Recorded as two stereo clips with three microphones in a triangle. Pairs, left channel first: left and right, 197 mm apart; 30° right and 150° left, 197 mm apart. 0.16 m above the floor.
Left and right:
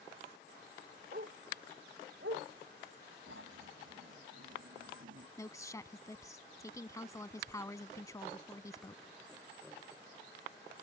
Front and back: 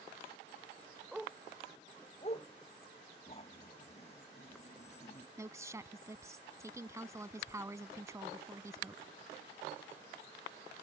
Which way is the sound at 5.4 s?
115° left.